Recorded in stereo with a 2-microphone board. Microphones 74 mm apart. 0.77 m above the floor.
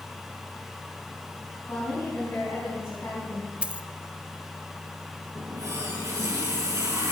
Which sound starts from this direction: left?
A woman speaking, at 1.7 s.